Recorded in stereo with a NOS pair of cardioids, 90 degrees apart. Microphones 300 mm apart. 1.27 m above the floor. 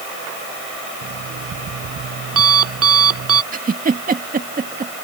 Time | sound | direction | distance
1.0 | an alarm clock | 50° right | ?
3.5 | a giggle | 25° right | ?